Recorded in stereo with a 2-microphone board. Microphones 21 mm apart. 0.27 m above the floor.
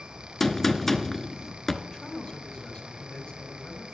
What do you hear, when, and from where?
0.4 s a gunshot: 20° left (ahead or behind), 0.8 m
1.8 s a man speaking: 60° left (ahead or behind), 3.5 m